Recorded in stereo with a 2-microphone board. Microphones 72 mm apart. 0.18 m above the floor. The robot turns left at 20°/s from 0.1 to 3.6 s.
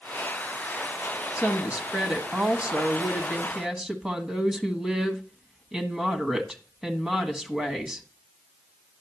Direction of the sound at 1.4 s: 20° right (ahead or behind).